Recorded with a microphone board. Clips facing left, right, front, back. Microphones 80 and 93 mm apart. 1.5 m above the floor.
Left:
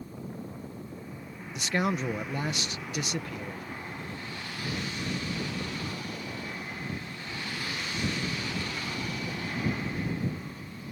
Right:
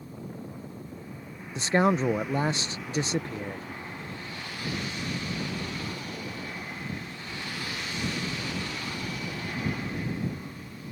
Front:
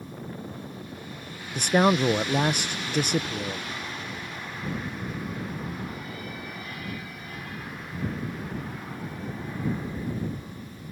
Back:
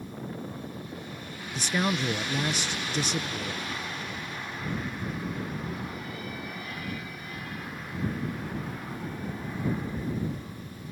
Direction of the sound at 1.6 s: 30° right.